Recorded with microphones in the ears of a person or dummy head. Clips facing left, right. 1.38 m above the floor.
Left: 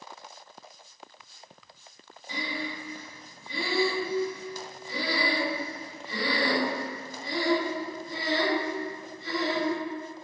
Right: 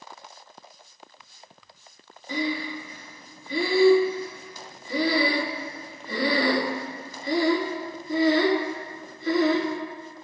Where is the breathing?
50° right (ahead or behind), 1.5 m.